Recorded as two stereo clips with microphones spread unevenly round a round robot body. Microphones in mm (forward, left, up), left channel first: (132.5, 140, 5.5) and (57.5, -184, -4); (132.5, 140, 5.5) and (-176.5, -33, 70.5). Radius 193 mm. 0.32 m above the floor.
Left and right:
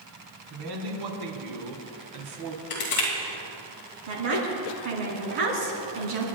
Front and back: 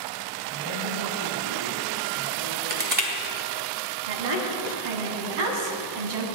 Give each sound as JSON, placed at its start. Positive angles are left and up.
{"t": 0.5, "sound": "a man speaking", "azimuth_deg": -110, "distance_m": 3.5}
{"t": 2.7, "sound": "crushing", "azimuth_deg": 140, "distance_m": 2.5}
{"t": 4.1, "sound": "a woman speaking", "azimuth_deg": -125, "distance_m": 3.5}